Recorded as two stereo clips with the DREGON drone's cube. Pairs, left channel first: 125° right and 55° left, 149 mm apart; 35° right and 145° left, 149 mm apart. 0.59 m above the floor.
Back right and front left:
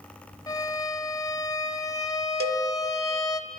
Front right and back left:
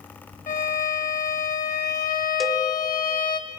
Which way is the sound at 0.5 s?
60° right.